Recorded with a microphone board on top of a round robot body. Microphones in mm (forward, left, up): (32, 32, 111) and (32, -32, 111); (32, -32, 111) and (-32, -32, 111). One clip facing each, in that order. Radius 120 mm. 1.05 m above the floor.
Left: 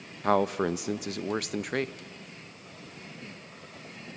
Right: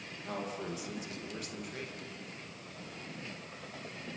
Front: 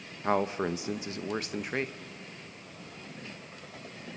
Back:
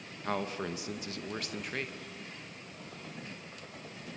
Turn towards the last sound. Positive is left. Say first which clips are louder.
# left 14 dB, front 7 dB
turn(degrees=65)